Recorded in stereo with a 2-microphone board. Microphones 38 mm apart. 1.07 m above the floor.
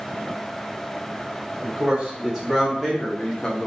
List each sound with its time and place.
1.6 s a man speaking: 15° right (ahead or behind), 1.7 m; by 3.7 s 30° left (ahead or behind), 1.0 m